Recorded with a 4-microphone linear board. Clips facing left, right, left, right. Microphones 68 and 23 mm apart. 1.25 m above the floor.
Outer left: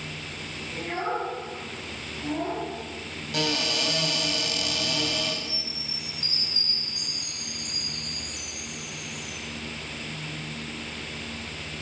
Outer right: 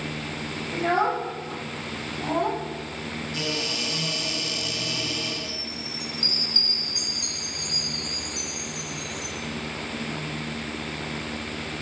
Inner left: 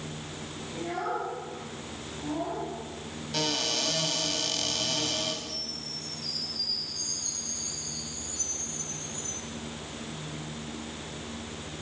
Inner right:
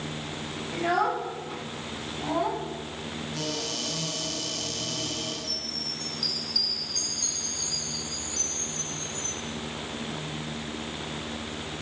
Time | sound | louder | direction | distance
0.7 | a child speaking | outer right 7 dB, inner right 7 dB | 80° right | 6 m
3.3 | a cupboard door | outer left 5 dB, inner left 5 dB | 65° left (ahead or behind) | 7.5 m
5.4 | a chime | outer right 3 dB, inner right 4 dB | 65° right (ahead or behind) | 6.5 m